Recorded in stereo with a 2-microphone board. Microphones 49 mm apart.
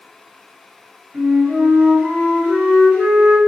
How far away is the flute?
About 1.6 m.